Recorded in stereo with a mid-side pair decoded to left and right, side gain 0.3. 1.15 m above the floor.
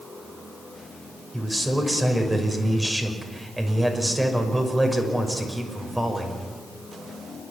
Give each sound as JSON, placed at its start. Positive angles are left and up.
{"t": 1.3, "sound": "a man speaking", "azimuth_deg": -10, "distance_m": 6.0}